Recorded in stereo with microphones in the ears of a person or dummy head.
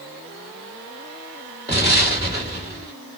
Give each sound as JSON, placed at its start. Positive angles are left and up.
{"t": 1.7, "sound": "an explosion", "side_deg": -20, "distance_m": 1.7}